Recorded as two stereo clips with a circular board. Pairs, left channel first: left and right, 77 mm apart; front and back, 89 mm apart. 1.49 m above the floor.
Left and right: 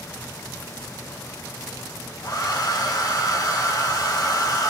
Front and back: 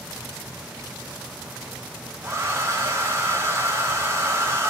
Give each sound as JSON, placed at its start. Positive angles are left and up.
{"t": 2.2, "sound": "a hair dryer", "azimuth_deg": 125, "distance_m": 1.9}